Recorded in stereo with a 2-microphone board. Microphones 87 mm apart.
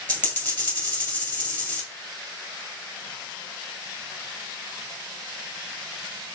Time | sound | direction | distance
0.1 | a dropped coin | 20° left (ahead or behind) | 1.9 m